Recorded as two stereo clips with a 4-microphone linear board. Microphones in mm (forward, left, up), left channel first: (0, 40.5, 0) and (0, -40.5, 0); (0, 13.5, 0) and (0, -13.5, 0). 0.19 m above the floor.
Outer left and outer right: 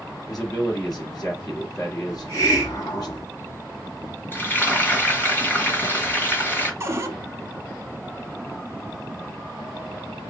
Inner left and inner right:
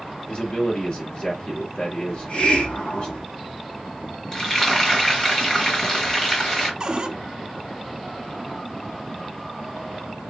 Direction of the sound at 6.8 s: 30° right (ahead or behind).